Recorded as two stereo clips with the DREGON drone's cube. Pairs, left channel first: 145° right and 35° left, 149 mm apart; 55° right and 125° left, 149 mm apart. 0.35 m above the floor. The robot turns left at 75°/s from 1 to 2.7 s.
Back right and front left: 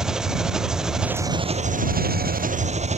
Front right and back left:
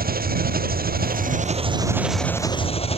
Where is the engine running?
120° left; by 3.0 s 5° right.